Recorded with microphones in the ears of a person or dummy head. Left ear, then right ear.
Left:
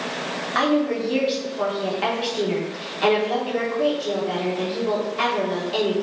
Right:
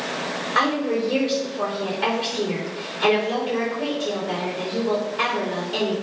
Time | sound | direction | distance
0.6 | a woman speaking | 30° left (ahead or behind) | 3.5 m